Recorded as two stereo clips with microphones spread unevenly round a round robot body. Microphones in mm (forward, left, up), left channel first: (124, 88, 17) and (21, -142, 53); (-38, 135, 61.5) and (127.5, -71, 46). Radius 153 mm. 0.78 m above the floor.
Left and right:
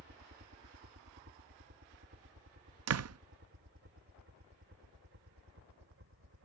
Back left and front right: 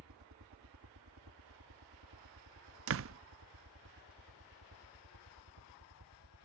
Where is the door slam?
85° right.